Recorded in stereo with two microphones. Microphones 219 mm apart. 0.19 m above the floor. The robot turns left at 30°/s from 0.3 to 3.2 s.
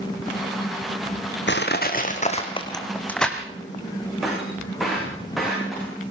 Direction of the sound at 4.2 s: Centre (ahead or behind).